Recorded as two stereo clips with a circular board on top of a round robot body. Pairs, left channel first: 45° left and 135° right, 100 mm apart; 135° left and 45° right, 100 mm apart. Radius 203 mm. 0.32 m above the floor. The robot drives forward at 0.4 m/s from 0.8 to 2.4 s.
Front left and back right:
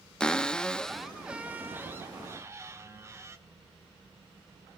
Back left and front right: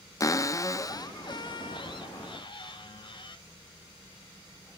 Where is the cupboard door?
120° left, 0.6 m; by 3.4 s 165° left, 0.9 m.